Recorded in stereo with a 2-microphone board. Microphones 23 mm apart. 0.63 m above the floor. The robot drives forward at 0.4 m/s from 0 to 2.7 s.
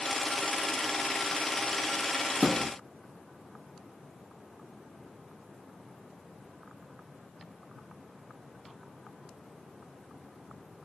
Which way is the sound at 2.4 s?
5° left (ahead or behind).